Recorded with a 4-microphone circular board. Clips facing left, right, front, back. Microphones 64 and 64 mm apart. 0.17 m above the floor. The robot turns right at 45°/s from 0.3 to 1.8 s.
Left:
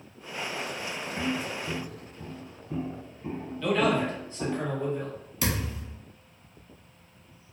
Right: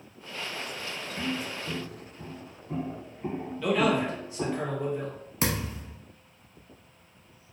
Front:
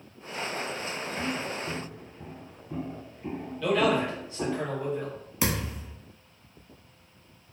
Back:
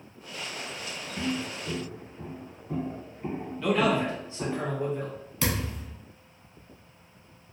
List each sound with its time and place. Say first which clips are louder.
1.2 s footsteps: left 2 dB, back 2 dB; 155° left, 1.8 m; by 4.6 s 65° right, 1.0 m
3.6 s a man speaking: even, even; 165° right, 1.1 m
5.4 s a thud: right 1 dB, front 1 dB; 65° right, 0.8 m